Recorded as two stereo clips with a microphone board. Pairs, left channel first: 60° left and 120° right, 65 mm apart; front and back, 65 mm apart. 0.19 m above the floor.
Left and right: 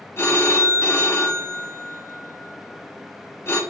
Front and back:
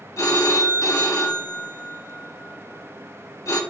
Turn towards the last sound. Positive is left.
turn(degrees=20)